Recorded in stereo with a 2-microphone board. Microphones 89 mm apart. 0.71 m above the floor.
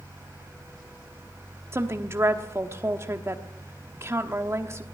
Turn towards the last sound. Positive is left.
turn(degrees=-30)  # may be behind; listen again after turning